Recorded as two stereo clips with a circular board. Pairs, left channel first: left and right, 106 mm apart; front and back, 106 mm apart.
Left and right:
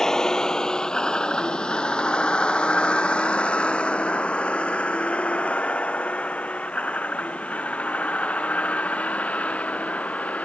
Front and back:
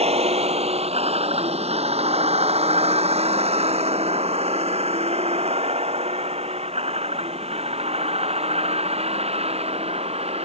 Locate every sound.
0.0 s a vehicle: 175° left; by 10.4 s 165° left